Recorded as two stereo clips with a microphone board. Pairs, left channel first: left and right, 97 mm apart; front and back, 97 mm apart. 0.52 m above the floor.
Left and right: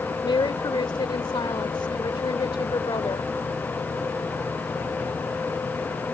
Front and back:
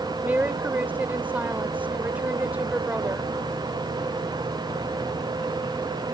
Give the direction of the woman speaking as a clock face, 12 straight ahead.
8 o'clock.